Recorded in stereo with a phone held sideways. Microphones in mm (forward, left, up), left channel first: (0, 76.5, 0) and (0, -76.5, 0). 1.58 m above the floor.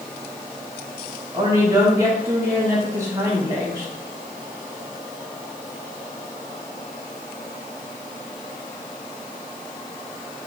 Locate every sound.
1.3 s a woman speaking: 20° right (ahead or behind), 2.5 m